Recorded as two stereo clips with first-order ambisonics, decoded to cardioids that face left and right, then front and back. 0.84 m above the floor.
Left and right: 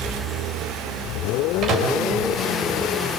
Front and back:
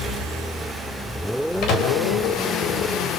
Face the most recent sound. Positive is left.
turn(degrees=-35)